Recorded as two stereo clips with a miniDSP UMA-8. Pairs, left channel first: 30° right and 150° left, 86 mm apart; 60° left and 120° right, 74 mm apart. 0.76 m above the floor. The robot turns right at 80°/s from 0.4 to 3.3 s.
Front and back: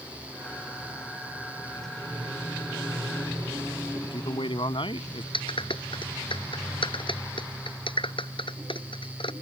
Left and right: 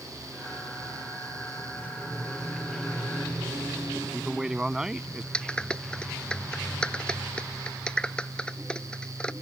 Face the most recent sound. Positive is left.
turn(degrees=-20)